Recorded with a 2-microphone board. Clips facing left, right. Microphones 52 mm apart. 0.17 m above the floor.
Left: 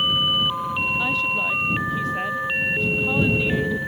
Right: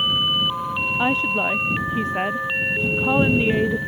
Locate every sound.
1.0 s a woman speaking: 30° right (ahead or behind)